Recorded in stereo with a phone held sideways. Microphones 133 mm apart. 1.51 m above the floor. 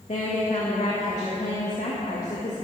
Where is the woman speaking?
65° left (ahead or behind), 2 m.